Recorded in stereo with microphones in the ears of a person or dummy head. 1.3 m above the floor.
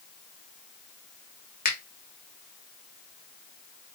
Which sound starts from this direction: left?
A finger snap, at 1.6 s.